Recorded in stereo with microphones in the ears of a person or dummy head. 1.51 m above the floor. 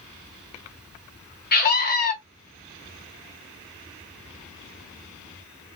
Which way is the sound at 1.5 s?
45° left (ahead or behind).